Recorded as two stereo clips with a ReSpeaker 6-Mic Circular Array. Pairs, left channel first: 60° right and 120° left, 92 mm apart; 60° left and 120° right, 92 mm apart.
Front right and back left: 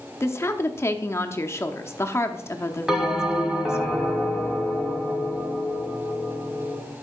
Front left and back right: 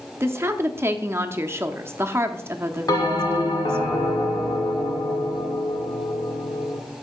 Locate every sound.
0.2 s a woman speaking: 85° right, 0.8 m
2.9 s a bell: 35° left, 1.7 m